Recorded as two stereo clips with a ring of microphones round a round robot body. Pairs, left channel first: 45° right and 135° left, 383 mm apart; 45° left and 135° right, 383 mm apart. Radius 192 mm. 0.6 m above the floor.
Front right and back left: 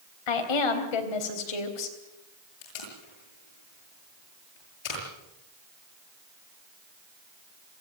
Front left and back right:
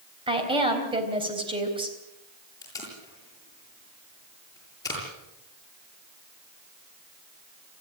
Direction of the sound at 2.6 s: 35° right.